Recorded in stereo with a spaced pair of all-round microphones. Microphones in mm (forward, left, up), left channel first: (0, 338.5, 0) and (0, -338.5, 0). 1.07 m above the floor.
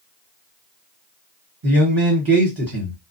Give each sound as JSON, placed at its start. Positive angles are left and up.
{"t": 1.6, "sound": "a man speaking", "side_deg": -30, "distance_m": 1.1}